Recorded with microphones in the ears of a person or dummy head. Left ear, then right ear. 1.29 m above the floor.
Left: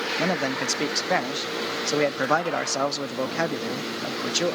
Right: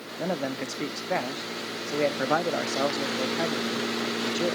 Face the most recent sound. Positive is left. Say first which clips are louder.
# left 1 dB
turn(degrees=60)  # may be behind; listen again after turning